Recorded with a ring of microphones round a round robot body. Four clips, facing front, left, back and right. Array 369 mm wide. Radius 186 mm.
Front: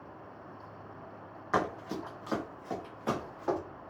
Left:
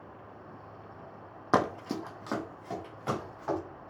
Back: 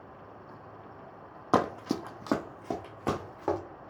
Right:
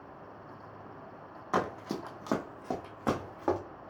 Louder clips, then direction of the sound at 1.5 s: Left 4 dB, back 4 dB; 145° left.